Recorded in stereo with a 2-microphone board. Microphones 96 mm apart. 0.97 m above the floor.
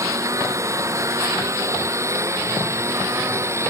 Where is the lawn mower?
35° right (ahead or behind); by 3.7 s 30° right (ahead or behind).